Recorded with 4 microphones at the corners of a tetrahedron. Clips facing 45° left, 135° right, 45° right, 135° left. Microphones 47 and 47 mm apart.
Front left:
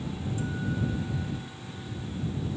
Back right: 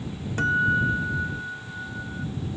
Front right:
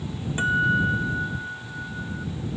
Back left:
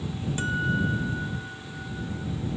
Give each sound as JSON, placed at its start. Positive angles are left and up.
{"t": 0.4, "sound": "a guitar", "azimuth_deg": -110}